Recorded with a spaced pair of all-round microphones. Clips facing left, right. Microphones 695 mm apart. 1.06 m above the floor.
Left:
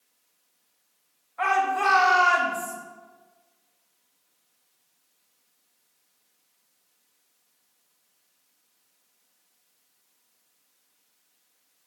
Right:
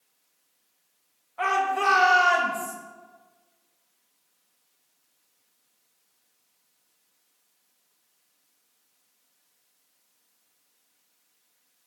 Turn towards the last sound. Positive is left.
turn(degrees=-55)  # may be behind; listen again after turning